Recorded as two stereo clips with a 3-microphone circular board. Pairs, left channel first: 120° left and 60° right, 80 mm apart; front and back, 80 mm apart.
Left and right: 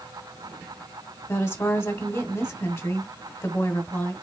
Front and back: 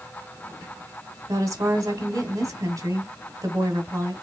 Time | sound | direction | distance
1.3 | a woman speaking | 155° left | 1.2 m